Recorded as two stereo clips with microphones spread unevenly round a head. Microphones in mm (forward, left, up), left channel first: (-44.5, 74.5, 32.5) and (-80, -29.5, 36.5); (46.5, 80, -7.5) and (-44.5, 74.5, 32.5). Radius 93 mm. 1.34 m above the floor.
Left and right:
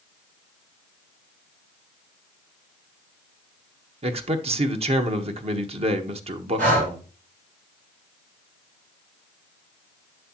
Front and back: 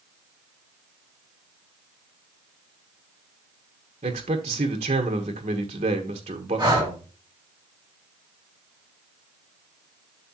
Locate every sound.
4.0 s a man speaking: 140° right, 1.3 m
6.6 s breathing: 100° right, 3.5 m